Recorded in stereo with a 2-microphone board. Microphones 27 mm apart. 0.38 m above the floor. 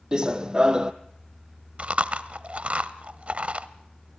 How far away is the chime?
No chime in this recording.